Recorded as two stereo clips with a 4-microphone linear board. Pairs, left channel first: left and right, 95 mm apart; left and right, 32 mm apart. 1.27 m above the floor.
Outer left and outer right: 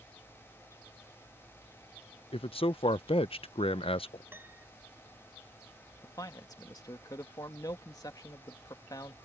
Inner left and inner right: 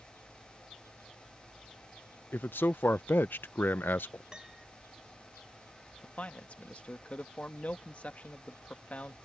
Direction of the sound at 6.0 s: 45° left (ahead or behind).